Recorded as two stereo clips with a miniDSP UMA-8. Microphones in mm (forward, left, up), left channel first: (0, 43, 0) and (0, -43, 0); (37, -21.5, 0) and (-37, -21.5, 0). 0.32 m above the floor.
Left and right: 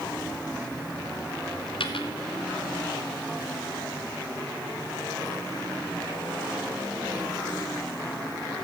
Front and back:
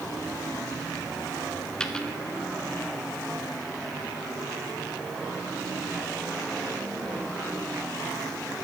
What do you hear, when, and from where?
1.8 s a dropped coin: 80° left, 1.2 m